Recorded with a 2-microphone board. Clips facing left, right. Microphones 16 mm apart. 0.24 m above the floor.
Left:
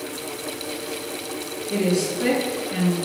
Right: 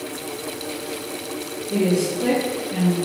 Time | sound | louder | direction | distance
1.7 | a woman speaking | right 2 dB | 35° left (ahead or behind) | 3.5 m